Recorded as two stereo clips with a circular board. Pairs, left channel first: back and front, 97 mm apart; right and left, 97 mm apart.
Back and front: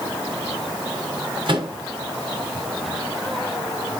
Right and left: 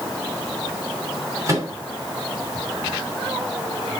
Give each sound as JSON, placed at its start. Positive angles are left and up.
{"t": 1.5, "sound": "a microwave", "azimuth_deg": 35, "distance_m": 2.5}